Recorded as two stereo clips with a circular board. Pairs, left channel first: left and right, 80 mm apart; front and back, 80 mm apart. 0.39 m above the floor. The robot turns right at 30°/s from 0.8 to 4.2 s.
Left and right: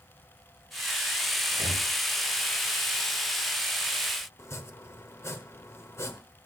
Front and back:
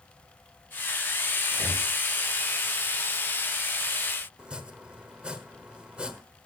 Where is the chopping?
115° left, 1.2 m.